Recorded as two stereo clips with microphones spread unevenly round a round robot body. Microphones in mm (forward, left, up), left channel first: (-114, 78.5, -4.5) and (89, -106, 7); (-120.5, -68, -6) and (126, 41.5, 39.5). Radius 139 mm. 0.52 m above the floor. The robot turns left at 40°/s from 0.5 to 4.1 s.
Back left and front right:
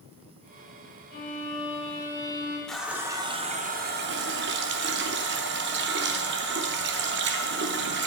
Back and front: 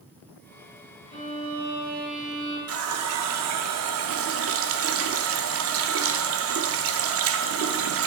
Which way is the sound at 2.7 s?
55° left.